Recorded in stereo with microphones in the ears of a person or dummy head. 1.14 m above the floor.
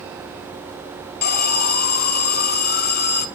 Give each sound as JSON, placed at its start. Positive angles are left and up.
{"t": 1.2, "sound": "an alarm", "side_deg": 45, "distance_m": 0.6}